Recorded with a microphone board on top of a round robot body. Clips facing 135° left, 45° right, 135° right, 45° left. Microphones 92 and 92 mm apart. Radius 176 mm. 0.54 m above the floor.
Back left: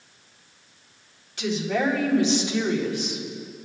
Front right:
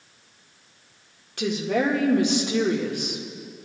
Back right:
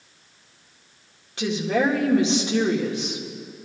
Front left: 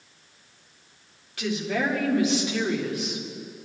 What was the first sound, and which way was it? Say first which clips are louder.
A woman speaking: front right 1 dB, back right 4 dB; 75° right.